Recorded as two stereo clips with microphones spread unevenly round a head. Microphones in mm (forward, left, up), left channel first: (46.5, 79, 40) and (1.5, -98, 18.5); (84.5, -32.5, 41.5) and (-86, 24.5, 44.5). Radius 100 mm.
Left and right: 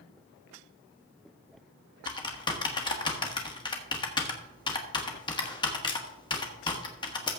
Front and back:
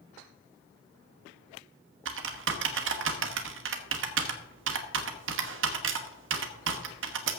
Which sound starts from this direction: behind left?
Typing on a keyboard, at 2.0 s.